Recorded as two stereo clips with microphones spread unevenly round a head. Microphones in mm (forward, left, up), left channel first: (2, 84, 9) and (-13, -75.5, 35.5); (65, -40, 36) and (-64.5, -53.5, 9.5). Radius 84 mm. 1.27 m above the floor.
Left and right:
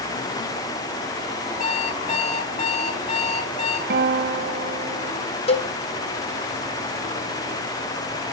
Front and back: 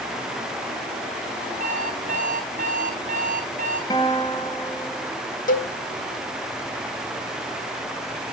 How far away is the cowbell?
About 1.8 m.